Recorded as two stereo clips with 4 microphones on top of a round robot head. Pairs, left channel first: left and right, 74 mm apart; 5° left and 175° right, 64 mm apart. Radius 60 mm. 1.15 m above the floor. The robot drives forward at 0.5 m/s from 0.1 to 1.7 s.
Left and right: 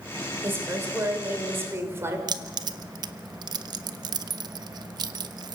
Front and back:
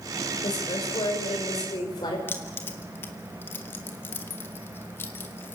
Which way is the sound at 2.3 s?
65° right.